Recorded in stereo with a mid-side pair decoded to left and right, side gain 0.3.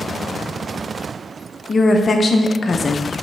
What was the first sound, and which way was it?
A woman speaking, 50° left.